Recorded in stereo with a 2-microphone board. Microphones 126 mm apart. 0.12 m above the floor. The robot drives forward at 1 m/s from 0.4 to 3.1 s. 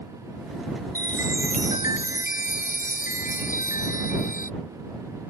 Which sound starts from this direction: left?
A chime, at 0.9 s.